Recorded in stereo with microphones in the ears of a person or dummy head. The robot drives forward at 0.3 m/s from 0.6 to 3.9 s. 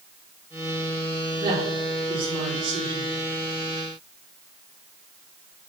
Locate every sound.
1.4 s a woman speaking: 30° right (ahead or behind), 4 m; by 3.1 s 35° right (ahead or behind), 4 m